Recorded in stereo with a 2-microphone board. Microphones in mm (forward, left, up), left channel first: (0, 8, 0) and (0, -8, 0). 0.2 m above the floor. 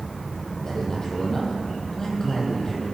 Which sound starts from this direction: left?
A man speaking, at 0.6 s.